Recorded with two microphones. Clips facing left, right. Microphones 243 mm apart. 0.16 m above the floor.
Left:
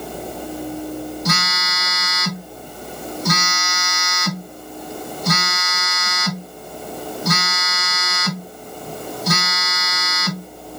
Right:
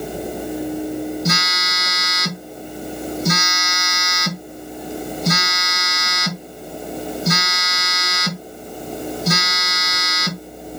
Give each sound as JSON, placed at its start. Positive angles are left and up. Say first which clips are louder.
{"t": 1.2, "sound": "a phone buzzing", "louder": "right 1 dB", "side_deg": -25, "distance_m": 1.0}